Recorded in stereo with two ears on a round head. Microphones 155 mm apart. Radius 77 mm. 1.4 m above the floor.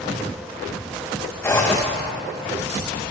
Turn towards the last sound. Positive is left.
turn(degrees=15)  # may be behind; listen again after turning